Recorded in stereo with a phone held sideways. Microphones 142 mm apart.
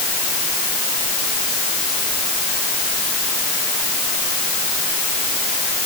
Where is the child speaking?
No child speaking in this recording.